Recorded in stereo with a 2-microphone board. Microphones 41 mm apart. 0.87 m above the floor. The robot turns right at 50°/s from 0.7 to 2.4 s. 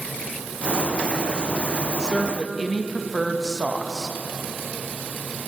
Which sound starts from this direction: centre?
A woman speaking, at 2.0 s.